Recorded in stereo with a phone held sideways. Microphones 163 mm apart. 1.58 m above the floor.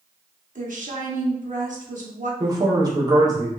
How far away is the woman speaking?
About 1.1 m.